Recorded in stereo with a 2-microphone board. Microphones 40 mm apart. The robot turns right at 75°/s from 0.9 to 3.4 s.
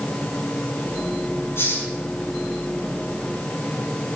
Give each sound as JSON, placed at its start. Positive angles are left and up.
{"t": 1.6, "sound": "a hiss", "side_deg": 75, "distance_m": 5.5}